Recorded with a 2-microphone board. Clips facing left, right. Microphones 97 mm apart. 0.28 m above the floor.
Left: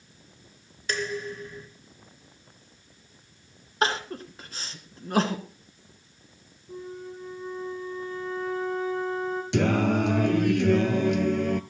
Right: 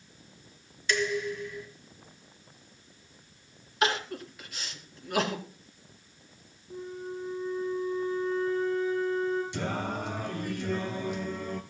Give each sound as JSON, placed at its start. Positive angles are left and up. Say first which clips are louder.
{"t": 0.9, "sound": "dishes clattering", "louder": "right 2 dB", "side_deg": 40, "distance_m": 2.5}
{"t": 3.8, "sound": "crying", "louder": "left 2 dB", "side_deg": 35, "distance_m": 2.5}
{"t": 6.7, "sound": "a flute", "louder": "even", "side_deg": 65, "distance_m": 7.0}
{"t": 9.5, "sound": "singing", "louder": "left 10 dB", "side_deg": 80, "distance_m": 0.9}